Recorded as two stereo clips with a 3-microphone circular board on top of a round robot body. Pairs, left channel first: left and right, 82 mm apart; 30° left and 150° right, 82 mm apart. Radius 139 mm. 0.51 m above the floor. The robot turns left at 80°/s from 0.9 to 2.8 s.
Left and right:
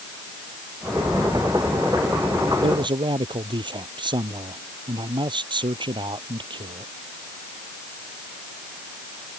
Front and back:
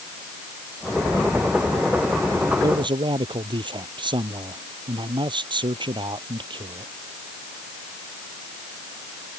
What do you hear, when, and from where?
2.6 s a man speaking: 105° right; by 6.9 s 120° right